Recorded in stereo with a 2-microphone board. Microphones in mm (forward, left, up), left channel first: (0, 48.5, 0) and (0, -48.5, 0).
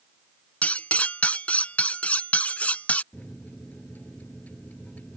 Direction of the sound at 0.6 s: 15° left (ahead or behind).